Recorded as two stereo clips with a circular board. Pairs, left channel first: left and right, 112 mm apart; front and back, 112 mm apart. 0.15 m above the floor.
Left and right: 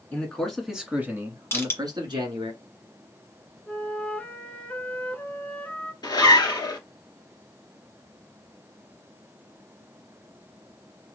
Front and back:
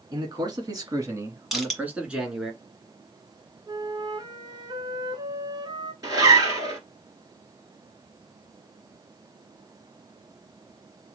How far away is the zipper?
About 1.8 m.